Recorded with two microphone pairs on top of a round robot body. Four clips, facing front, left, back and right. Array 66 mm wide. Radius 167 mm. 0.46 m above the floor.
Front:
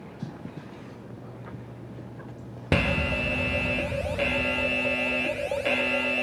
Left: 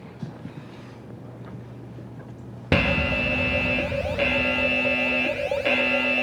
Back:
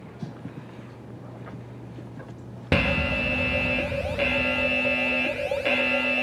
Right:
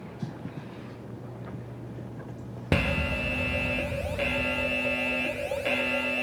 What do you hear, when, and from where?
2.7 s an alarm: 115° left, 1.0 m